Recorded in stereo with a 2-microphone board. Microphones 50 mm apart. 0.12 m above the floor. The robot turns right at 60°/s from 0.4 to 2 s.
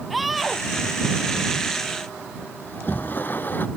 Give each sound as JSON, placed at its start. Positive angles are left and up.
{"t": 0.1, "sound": "a scream", "side_deg": 0}
{"t": 2.6, "sound": "a sliding door", "side_deg": 40}